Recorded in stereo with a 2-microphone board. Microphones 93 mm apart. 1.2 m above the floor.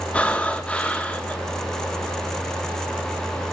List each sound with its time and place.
0.1 s breathing: 10° left (ahead or behind), 1.9 m